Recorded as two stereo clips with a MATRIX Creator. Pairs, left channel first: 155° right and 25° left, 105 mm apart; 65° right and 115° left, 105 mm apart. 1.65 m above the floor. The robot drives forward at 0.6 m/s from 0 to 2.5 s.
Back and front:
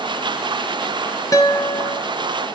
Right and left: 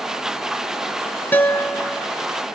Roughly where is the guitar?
Behind right.